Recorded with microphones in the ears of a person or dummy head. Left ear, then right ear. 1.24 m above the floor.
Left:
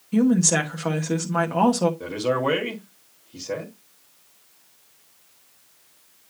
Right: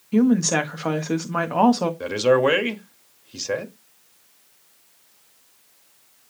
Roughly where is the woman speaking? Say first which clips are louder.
Right 1 dB; centre.